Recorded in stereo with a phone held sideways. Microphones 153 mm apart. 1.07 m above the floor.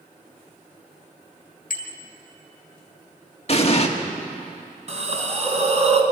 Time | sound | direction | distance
1.7 | a bicycle bell | 75° left (ahead or behind) | 2.5 m
3.5 | an explosion | 45° left (ahead or behind) | 1.6 m
4.9 | a hiss | 50° right (ahead or behind) | 2.5 m